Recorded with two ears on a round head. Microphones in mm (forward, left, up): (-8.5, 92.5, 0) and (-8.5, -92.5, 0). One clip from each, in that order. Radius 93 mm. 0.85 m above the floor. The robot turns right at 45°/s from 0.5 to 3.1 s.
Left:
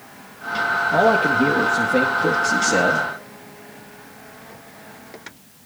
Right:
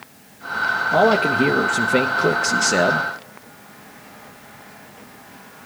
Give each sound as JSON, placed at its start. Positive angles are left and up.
{"t": 0.9, "sound": "a man speaking", "azimuth_deg": -155, "distance_m": 0.7}